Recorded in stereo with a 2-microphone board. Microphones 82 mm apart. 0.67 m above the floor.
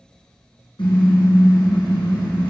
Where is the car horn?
75° left (ahead or behind), 5 m.